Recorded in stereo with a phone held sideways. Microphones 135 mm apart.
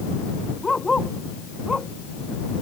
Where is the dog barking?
5° left (ahead or behind).